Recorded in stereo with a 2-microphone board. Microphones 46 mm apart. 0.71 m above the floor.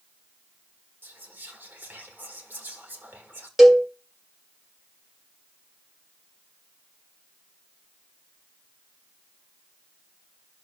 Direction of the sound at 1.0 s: 50° right (ahead or behind).